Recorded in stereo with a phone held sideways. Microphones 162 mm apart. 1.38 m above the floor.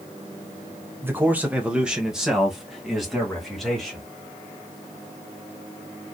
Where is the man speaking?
15° right (ahead or behind), 1.0 m; by 4.0 s centre (ahead or behind), 2.5 m.